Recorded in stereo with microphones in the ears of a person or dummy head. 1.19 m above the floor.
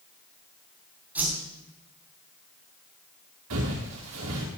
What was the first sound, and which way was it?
A whoosh, 10° right (ahead or behind).